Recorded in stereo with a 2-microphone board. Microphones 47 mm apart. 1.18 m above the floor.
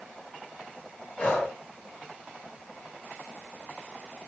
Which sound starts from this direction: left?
Breathing, at 1.2 s.